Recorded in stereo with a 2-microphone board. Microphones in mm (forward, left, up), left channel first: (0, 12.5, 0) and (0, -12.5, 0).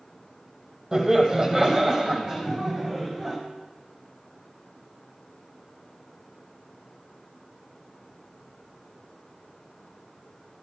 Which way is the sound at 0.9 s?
15° right (ahead or behind).